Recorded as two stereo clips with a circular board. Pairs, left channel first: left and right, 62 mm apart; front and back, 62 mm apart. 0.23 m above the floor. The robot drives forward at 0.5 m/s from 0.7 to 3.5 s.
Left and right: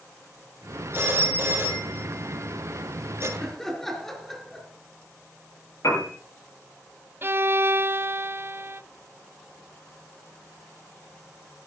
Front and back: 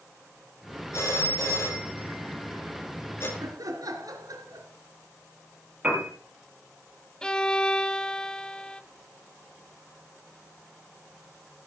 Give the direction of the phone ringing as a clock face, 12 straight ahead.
1 o'clock.